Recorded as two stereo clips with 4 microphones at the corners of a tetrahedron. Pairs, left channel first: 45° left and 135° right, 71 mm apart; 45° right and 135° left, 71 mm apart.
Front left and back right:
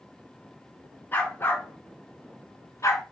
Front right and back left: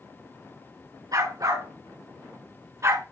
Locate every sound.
1.1 s a dog barking: 110° left, 3.5 m; by 3.0 s 90° left, 3 m